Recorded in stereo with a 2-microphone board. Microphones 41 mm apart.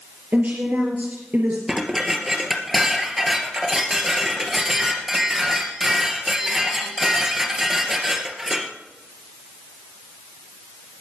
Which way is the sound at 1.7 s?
10° right (ahead or behind).